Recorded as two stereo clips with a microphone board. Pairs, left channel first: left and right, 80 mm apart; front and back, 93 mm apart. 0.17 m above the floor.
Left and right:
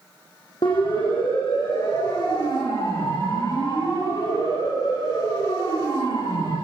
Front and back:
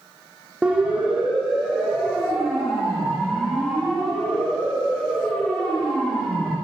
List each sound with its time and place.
0.6 s a siren: 100° left, 9.5 m; by 6.5 s 80° left, 18 m